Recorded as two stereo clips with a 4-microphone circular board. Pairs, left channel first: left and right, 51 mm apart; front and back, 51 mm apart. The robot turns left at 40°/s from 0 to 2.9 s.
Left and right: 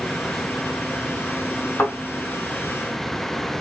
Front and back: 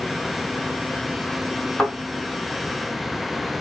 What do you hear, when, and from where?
1.8 s a thud: 70° left, 2.5 m; by 1.9 s 65° left, 2.5 m